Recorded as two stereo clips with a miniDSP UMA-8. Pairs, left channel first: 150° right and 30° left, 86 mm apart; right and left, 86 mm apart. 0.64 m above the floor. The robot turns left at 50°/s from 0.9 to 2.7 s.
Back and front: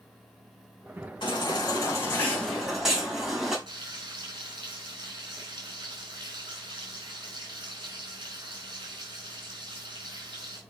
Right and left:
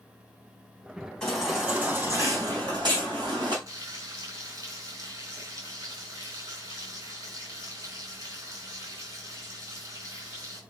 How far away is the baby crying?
About 4 m.